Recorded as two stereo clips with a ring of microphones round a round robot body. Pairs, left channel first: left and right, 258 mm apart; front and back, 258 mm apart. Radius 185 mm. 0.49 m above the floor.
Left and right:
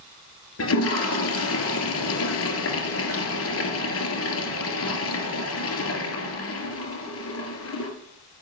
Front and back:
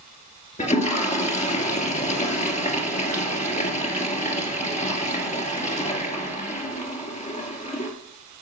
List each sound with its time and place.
0.6 s a toilet flushing: 65° left, 2.5 m